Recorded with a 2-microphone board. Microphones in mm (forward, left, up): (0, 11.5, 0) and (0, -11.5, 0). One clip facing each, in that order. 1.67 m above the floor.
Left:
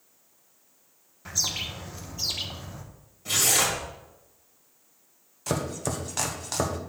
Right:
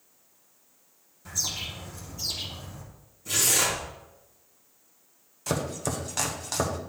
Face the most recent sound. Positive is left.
turn(degrees=0)  # may be behind; listen again after turning